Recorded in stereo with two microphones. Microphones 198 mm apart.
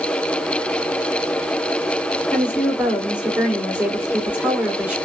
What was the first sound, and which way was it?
A woman speaking, 5° right (ahead or behind).